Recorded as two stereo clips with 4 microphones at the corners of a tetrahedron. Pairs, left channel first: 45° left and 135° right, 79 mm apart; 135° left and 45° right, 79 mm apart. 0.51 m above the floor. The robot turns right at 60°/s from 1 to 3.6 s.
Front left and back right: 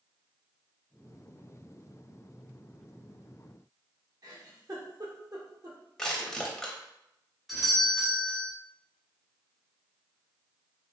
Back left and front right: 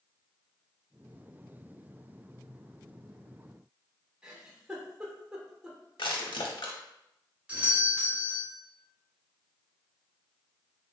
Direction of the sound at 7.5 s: 45° right.